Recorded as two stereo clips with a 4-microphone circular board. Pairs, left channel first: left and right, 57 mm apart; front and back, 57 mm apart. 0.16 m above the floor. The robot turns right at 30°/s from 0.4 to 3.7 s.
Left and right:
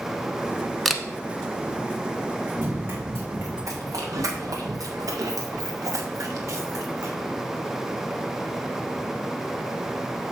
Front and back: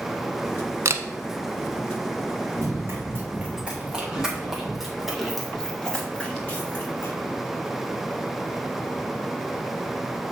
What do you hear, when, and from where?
0.8 s a camera shutter: straight behind, 0.8 m; by 1.0 s 175° right, 0.8 m
2.6 s running footsteps: 150° right, 3.5 m; by 7.1 s 50° right, 1.7 m